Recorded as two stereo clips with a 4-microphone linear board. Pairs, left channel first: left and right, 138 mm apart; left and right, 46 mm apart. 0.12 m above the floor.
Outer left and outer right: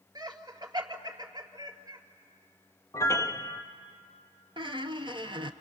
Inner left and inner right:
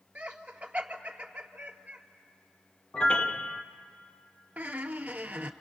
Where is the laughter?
30° right (ahead or behind), 2 m.